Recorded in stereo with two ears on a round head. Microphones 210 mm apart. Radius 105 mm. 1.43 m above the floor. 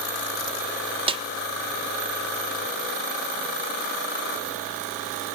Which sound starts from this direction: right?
A snare drum, at 1.1 s.